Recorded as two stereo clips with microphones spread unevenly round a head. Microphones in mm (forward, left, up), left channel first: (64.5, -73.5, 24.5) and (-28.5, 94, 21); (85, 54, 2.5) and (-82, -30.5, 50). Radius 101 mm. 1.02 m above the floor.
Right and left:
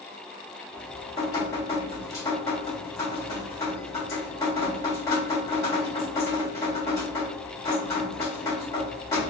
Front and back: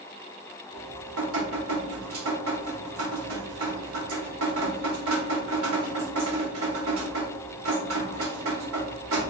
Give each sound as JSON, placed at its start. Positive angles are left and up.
{"t": 0.7, "sound": "dripping", "azimuth_deg": -135, "distance_m": 1.7}